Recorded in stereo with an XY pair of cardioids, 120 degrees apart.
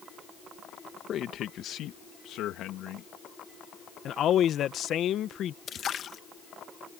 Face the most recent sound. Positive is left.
turn(degrees=45)